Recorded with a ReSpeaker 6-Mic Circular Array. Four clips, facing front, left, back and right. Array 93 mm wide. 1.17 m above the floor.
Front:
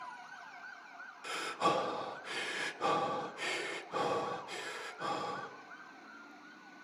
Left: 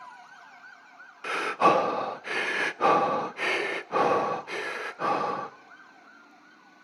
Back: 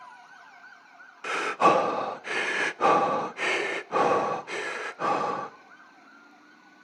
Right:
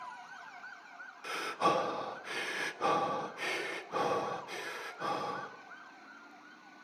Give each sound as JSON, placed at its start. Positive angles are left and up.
{"t": 1.2, "sound": "breathing", "azimuth_deg": 140, "distance_m": 0.7}